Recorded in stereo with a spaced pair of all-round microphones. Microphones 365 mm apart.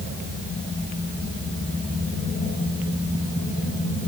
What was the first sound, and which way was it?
Only background noise.